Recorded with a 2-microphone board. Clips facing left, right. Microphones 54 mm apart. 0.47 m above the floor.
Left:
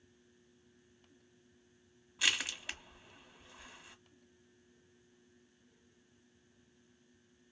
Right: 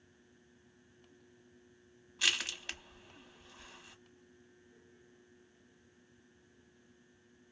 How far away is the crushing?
About 0.7 m.